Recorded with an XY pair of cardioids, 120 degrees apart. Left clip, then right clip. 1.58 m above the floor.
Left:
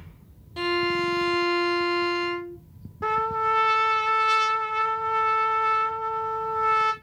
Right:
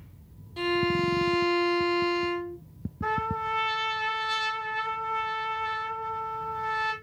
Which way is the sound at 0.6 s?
30° left.